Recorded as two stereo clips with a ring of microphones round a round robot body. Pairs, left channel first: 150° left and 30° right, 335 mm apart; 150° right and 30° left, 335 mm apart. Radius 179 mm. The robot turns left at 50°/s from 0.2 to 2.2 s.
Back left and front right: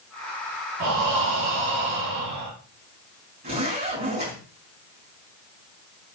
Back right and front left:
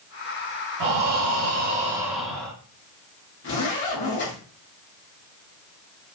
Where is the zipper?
95° right, 5.5 m.